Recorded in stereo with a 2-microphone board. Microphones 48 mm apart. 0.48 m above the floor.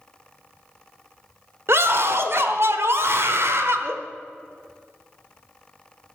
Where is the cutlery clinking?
No cutlery clinking in this recording.